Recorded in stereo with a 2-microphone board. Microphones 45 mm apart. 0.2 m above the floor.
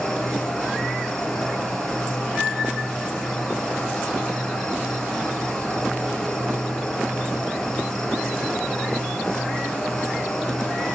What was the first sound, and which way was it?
An insect, 15° left (ahead or behind).